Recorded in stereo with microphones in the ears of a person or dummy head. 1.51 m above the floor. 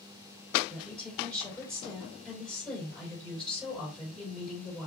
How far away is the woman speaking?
About 3 m.